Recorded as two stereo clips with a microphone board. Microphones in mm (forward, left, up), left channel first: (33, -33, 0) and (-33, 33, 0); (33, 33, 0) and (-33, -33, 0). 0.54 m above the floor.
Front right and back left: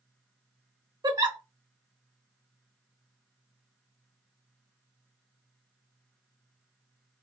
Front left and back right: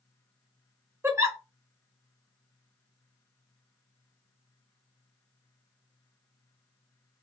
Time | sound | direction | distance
1.0 | a giggle | 170° left | 0.7 m